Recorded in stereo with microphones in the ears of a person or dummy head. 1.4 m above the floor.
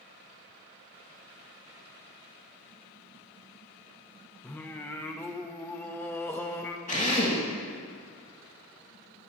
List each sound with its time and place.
4.4 s singing: 10° left (ahead or behind), 0.9 m
6.9 s a drill: 30° left (ahead or behind), 2.5 m